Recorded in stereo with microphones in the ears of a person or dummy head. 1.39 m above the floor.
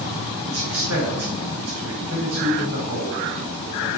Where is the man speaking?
70° right (ahead or behind), 2.0 m.